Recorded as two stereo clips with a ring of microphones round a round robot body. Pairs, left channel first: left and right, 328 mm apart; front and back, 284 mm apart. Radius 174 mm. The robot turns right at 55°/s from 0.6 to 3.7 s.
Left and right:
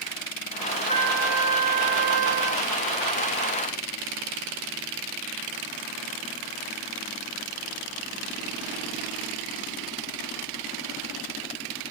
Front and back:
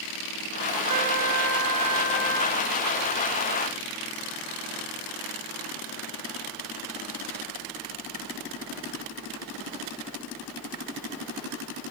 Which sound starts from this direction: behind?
A trumpet, at 0.9 s.